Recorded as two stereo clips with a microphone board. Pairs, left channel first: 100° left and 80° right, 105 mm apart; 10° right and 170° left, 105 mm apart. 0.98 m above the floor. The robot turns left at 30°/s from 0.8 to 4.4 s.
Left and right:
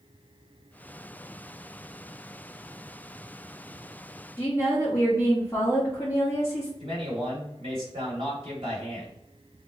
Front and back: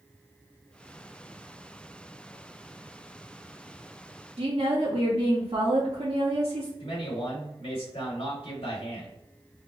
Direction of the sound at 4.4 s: 165° left.